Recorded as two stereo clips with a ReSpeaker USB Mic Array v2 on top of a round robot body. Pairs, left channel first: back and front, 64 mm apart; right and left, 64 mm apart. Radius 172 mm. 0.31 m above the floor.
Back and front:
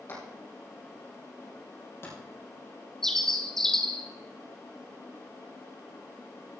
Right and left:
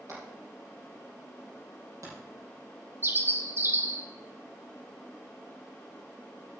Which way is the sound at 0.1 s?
130° left.